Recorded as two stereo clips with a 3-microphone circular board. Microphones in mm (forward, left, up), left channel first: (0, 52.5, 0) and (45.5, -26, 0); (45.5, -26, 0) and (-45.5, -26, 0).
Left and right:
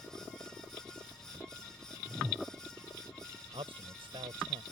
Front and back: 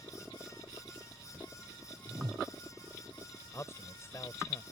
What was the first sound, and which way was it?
A whoosh, 140° right.